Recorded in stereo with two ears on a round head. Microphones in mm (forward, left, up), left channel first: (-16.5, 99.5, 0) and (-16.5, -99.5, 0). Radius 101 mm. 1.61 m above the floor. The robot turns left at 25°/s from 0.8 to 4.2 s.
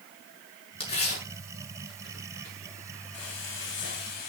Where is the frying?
70° left (ahead or behind), 4 m; by 4.3 s 45° left (ahead or behind), 4 m.